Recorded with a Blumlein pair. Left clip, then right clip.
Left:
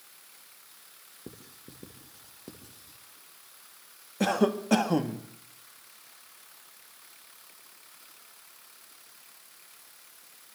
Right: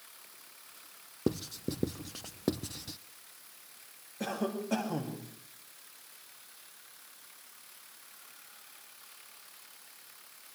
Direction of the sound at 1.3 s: 35° right.